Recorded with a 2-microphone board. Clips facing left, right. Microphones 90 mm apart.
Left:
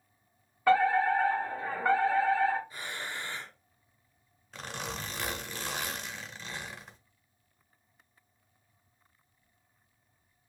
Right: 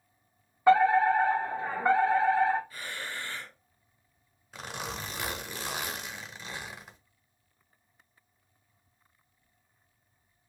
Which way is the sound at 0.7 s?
20° right (ahead or behind).